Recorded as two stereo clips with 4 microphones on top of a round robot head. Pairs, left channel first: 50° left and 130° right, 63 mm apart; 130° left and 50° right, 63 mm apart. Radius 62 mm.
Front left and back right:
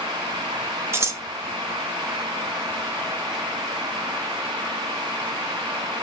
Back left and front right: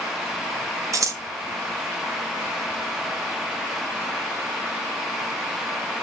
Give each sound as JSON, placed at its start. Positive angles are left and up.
{"t": 0.9, "sound": "scissors", "azimuth_deg": -85, "distance_m": 0.6}